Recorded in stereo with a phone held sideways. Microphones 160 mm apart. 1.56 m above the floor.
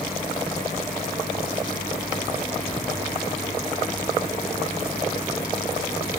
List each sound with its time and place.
Only background noise.